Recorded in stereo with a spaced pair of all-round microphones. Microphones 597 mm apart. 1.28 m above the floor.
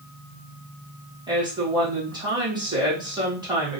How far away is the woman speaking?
About 1.7 m.